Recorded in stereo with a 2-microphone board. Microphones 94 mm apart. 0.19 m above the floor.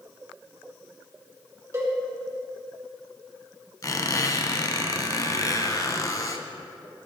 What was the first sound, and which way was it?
A cowbell, 35° right (ahead or behind).